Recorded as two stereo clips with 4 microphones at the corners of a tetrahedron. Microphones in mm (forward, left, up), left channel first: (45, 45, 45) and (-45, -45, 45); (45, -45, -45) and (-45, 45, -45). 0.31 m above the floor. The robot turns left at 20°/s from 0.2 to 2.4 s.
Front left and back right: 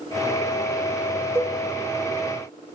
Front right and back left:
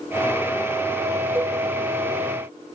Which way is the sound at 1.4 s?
175° left.